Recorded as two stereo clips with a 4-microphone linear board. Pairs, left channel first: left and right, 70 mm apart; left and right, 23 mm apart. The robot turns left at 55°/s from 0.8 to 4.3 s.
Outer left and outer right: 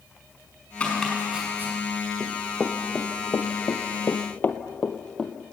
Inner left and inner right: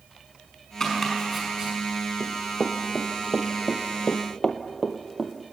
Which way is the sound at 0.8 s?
20° left (ahead or behind).